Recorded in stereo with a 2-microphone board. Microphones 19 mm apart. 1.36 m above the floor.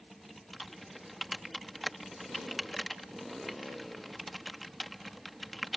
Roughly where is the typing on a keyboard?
Centre.